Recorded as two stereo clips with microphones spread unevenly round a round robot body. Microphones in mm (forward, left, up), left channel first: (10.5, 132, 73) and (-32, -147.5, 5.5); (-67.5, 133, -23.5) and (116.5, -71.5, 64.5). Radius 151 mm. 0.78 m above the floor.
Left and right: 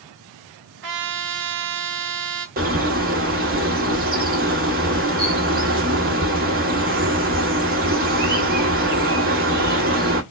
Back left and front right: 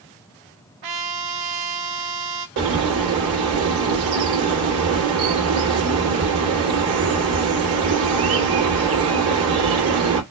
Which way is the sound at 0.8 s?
50° right.